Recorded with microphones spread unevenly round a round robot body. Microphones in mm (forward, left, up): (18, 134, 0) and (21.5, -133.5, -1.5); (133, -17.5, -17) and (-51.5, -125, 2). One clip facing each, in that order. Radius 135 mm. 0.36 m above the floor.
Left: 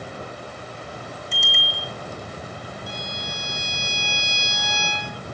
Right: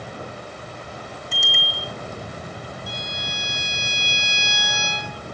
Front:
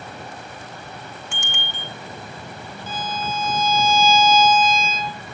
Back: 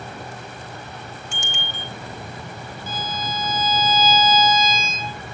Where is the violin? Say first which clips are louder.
Even, front 2 dB; 70° right, 4.5 m.